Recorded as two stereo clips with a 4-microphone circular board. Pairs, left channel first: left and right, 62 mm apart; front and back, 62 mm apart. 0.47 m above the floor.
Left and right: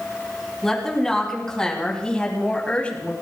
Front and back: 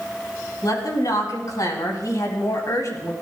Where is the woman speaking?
5° left, 4.5 m; by 3.1 s 25° left, 3.5 m.